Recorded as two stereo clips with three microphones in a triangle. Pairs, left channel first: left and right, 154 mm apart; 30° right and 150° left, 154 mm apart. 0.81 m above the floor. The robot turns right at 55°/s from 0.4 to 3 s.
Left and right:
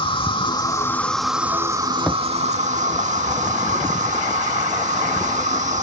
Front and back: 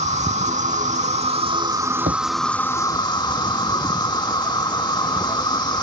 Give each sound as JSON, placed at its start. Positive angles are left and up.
{"t": 0.0, "sound": "an insect", "azimuth_deg": 135}
{"t": 2.1, "sound": "a thud", "azimuth_deg": 175}